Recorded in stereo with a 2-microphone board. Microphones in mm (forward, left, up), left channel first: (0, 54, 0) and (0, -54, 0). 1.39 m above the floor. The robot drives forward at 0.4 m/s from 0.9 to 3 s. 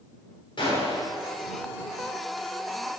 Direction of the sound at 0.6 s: 45° left (ahead or behind).